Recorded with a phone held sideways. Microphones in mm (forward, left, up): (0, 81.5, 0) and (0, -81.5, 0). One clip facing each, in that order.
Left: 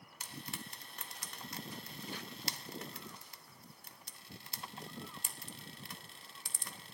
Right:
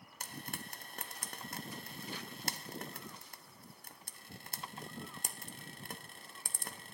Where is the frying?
50° right (ahead or behind), 0.6 m.